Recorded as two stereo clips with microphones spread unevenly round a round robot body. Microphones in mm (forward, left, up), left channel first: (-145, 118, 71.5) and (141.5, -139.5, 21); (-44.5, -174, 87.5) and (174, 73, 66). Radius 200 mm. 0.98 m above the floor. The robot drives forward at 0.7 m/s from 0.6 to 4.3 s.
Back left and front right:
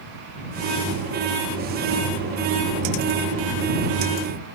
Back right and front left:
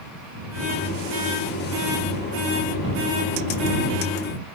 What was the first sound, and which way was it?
Only background noise.